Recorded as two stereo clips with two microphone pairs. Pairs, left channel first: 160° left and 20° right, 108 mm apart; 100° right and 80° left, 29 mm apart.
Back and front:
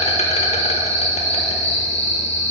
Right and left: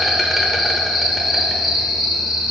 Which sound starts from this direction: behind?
An insect, at 0.0 s.